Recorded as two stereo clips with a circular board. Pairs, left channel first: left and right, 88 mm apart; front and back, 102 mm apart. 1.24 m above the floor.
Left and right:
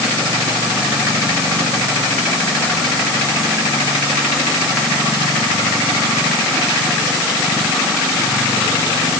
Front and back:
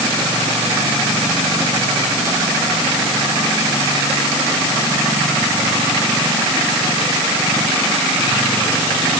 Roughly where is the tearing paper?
I don't hear tearing paper.